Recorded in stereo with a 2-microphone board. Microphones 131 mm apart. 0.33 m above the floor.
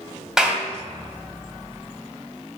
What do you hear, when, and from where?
0.4 s a clap: 5° right (ahead or behind), 2.0 m